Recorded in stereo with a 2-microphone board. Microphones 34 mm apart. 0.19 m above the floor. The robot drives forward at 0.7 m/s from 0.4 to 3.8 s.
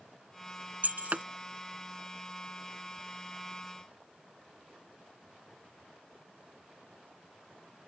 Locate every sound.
0.8 s breaking glass: 55° right (ahead or behind); by 1.2 s 45° right (ahead or behind)